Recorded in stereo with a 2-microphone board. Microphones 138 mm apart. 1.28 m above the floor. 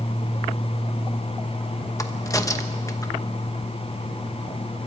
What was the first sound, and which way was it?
A crack, 25° left (ahead or behind).